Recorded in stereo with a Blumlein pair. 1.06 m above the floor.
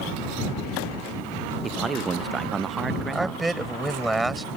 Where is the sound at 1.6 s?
15° right.